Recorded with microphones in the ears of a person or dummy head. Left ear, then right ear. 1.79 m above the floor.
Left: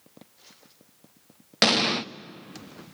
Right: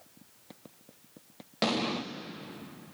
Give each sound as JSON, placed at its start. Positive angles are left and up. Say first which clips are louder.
{"t": 1.6, "sound": "an explosion", "louder": "left 9 dB", "side_deg": 55, "distance_m": 0.6}